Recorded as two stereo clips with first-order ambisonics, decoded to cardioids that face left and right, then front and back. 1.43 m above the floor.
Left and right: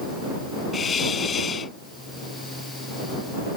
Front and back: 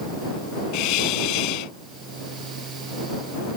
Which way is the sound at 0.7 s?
20° left.